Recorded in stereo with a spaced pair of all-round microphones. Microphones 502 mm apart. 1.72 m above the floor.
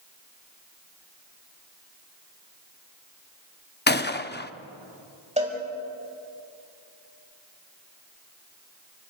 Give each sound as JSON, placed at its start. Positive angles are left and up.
{"t": 3.9, "sound": "a gunshot", "side_deg": 20, "distance_m": 0.6}
{"t": 5.4, "sound": "a cowbell", "side_deg": -15, "distance_m": 5.5}